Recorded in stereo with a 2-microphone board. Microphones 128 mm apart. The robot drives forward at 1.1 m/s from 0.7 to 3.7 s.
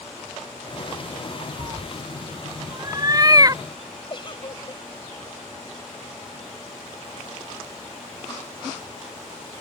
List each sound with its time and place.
1.6 s a cat meowing: 30° right (ahead or behind); by 3.6 s 25° right (ahead or behind)
4.1 s a giggle: 40° left (ahead or behind)